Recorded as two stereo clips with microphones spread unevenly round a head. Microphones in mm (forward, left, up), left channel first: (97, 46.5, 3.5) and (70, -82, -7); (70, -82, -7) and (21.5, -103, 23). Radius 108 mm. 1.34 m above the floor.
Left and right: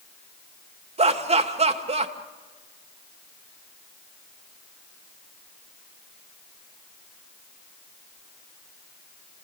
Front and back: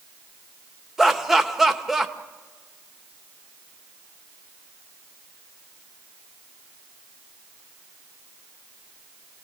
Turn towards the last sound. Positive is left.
turn(degrees=-65)